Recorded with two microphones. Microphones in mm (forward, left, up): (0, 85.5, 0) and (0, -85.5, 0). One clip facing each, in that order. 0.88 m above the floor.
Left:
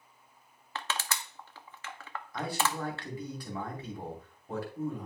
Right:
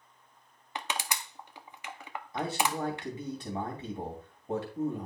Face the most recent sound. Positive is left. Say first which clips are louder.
# right 2 dB
turn(degrees=-20)  # may be behind; listen again after turning